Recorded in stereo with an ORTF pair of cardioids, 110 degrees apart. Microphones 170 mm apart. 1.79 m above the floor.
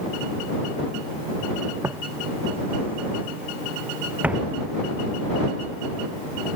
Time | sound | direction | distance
1.8 | footsteps | 15° right | ?